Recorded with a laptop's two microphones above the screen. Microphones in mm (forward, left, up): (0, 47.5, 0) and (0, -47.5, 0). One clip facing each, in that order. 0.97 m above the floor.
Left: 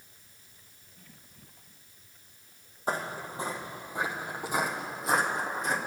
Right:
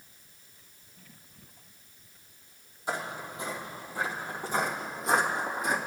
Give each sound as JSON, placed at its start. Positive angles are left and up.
{"t": 2.9, "sound": "footsteps", "side_deg": 45, "distance_m": 1.4}